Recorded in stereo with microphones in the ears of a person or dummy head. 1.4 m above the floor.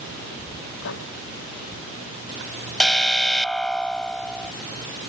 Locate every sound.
0.8 s writing: 65° left (ahead or behind)
2.8 s an alarm: 5° left (ahead or behind)